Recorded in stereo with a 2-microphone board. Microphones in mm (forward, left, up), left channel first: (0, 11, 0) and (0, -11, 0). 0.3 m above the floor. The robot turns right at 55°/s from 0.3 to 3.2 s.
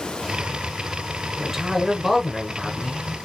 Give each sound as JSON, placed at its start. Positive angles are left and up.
{"t": 1.4, "sound": "a man speaking", "azimuth_deg": -60, "distance_m": 1.0}